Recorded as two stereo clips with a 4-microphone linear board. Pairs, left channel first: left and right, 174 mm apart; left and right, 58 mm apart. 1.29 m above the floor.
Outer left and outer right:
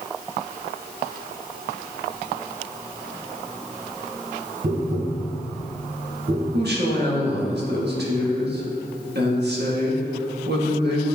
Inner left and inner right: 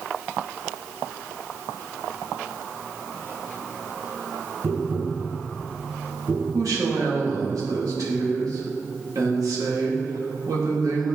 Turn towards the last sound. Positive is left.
turn(degrees=-75)  # may be behind; listen again after turning